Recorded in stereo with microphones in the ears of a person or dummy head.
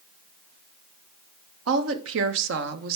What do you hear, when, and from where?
1.7 s a woman speaking: 75° right (ahead or behind), 1.4 m; by 3.0 s 50° right (ahead or behind), 0.8 m